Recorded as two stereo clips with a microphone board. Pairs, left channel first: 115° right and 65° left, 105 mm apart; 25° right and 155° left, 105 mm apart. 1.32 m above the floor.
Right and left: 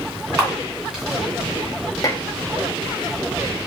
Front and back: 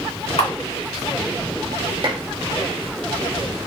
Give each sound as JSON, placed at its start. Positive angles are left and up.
{"t": 0.4, "sound": "a camera shutter", "azimuth_deg": -10, "distance_m": 2.5}
{"t": 2.0, "sound": "dishes clattering", "azimuth_deg": -170, "distance_m": 0.9}